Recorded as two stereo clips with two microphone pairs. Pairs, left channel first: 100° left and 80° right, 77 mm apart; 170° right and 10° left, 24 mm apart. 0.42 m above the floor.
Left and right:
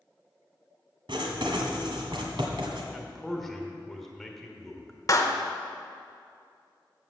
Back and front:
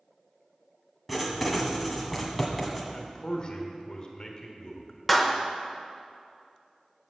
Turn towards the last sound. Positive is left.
turn(degrees=100)